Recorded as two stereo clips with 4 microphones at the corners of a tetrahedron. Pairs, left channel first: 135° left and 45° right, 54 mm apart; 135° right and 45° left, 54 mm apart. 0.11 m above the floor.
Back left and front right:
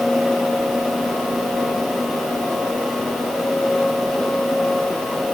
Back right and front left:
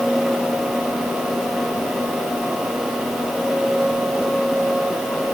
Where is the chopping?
I don't hear chopping.